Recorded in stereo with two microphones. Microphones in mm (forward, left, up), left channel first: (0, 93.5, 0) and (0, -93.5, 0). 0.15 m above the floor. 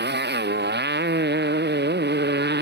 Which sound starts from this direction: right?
A motorcycle, at 0.0 s.